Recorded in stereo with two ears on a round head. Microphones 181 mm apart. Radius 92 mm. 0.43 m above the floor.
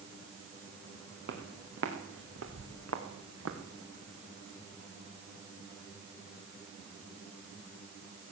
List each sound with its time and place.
1.3 s footsteps: 60° right (ahead or behind), 2.5 m; by 3.6 s 80° right, 2 m